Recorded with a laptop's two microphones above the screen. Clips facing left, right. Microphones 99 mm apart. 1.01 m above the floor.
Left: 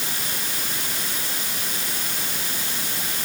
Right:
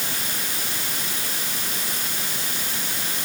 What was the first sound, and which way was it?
Only background noise.